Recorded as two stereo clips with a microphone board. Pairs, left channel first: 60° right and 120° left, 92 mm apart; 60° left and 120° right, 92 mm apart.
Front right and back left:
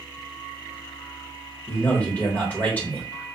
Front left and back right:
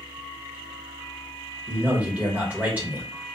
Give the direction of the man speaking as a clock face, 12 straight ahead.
3 o'clock.